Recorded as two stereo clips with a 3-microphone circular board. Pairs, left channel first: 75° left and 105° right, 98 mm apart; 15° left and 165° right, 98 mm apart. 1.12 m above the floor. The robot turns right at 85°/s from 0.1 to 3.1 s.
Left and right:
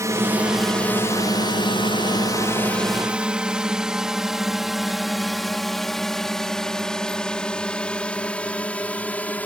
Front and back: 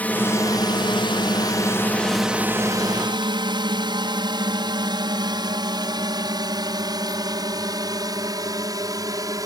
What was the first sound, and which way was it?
A drone, 55° right.